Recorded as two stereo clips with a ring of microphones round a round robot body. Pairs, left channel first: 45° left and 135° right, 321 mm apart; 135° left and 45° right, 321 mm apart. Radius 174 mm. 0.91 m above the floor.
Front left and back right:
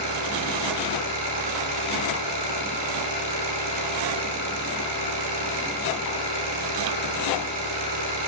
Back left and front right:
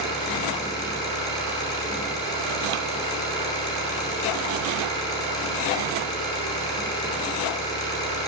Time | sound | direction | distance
0.0 | an engine running | 145° right | 5.5 m